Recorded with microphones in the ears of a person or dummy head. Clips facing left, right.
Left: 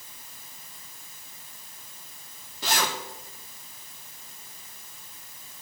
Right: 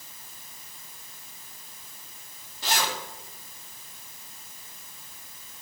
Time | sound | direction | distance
2.6 | a zipper | 75° left (ahead or behind) | 2.5 m